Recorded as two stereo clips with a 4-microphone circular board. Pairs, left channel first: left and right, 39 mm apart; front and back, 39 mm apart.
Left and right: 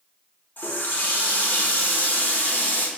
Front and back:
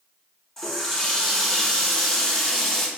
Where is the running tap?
75° left, 0.8 m.